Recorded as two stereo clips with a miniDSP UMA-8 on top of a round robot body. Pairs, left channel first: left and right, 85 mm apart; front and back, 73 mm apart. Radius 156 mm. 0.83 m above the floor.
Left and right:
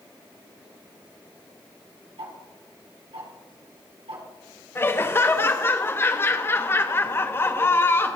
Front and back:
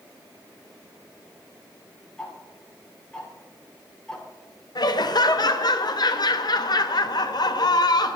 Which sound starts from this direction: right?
Ticking, at 2.2 s.